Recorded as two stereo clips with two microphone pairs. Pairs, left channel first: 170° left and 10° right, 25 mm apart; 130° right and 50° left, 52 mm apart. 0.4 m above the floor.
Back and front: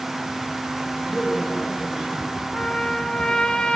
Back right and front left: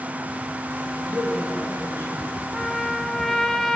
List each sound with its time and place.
0.9 s a man speaking: 90° left, 4.5 m
2.5 s a trumpet: 150° left, 0.9 m